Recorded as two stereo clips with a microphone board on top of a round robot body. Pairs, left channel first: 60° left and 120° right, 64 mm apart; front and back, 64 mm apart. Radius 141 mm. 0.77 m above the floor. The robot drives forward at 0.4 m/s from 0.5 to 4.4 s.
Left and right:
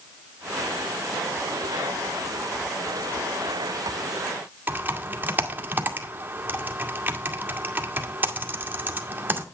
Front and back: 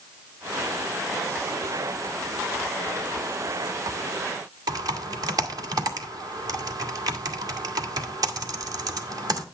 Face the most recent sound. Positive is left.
turn(degrees=180)